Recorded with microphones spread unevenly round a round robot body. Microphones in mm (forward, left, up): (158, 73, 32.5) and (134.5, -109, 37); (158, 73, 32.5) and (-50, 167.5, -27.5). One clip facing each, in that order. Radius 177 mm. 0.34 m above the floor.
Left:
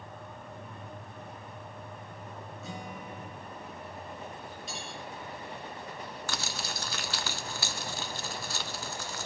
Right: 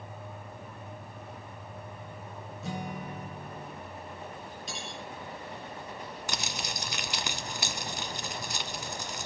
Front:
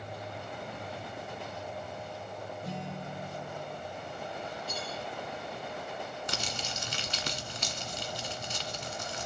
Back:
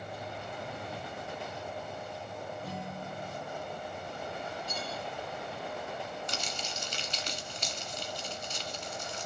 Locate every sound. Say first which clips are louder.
2.6 s a guitar: right 6 dB, front 1 dB; 105° right, 1.8 m
4.7 s cutlery clinking: right 2 dB, even; 100° right, 3.5 m
6.3 s crumpling: right 1 dB, front 1 dB; 25° right, 1.5 m